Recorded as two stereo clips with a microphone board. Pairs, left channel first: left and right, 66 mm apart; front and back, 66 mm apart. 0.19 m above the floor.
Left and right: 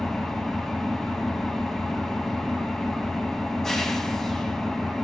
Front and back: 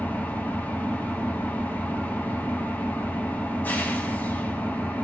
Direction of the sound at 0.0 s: 10° left.